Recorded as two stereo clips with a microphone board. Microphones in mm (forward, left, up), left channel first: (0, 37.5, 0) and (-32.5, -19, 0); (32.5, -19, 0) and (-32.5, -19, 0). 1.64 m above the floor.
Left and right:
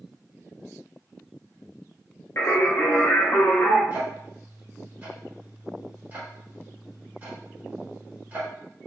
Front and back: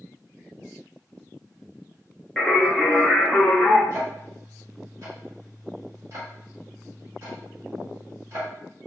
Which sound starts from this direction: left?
Singing, at 2.4 s.